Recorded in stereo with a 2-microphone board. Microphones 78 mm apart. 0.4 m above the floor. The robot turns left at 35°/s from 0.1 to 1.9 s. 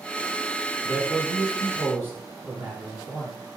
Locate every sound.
0.8 s a man speaking: 115° right, 3.5 m; by 3.4 s 155° right, 3.5 m